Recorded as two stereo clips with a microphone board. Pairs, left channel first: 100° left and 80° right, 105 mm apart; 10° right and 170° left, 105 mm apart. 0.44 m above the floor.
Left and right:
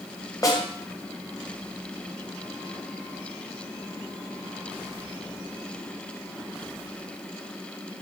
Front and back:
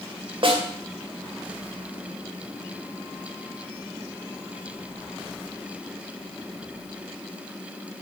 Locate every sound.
0.4 s a snare drum: 150° left, 2 m